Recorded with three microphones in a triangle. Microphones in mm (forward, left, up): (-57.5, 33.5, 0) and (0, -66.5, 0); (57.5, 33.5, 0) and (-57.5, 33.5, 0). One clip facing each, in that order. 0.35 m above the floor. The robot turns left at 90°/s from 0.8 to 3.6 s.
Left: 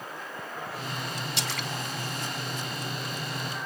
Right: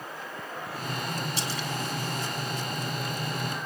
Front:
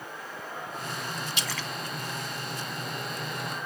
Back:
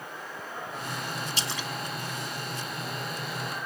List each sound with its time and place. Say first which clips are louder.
1.4 s a splash: right 1 dB, back 1 dB; 130° left, 1.4 m; by 1.7 s 100° left, 1.4 m